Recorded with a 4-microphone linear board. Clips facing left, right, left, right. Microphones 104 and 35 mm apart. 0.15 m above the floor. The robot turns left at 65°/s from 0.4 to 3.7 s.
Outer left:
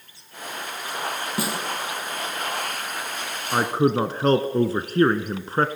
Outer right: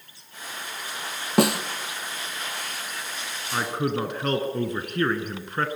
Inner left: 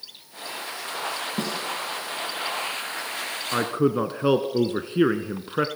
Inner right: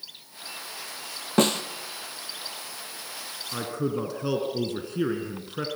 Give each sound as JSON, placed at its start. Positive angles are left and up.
{"t": 1.4, "sound": "a snare drum", "side_deg": -70, "distance_m": 2.0}
{"t": 3.5, "sound": "a man speaking", "side_deg": 40, "distance_m": 1.5}